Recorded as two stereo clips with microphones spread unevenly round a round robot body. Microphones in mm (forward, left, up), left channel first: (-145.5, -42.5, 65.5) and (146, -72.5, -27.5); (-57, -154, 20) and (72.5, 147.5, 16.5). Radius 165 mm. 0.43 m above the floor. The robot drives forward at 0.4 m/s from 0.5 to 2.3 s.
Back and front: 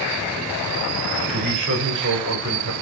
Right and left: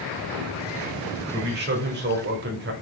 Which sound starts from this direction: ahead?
A man speaking, at 1.3 s.